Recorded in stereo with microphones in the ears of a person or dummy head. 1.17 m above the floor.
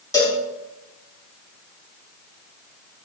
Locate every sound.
0.1 s a cowbell: 20° left (ahead or behind), 1.7 m